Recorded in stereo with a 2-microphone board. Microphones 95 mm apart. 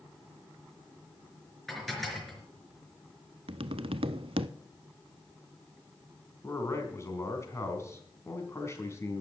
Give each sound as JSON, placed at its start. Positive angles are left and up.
{"t": 1.7, "sound": "dishes clattering", "side_deg": 0, "distance_m": 4.0}
{"t": 3.5, "sound": "tapping", "side_deg": -75, "distance_m": 0.5}
{"t": 6.4, "sound": "a man speaking", "side_deg": 30, "distance_m": 3.5}